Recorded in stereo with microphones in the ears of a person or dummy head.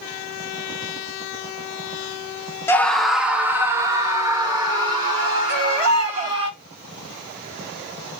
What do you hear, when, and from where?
2.7 s a scream: 10° left (ahead or behind), 0.6 m; by 6.5 s 25° right (ahead or behind), 2.5 m
5.5 s a baby crying: 60° right (ahead or behind), 1.9 m